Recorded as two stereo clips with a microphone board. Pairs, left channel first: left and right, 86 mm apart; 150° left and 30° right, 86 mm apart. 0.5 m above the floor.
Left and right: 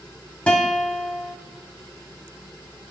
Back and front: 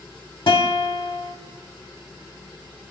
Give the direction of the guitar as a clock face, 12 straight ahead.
6 o'clock.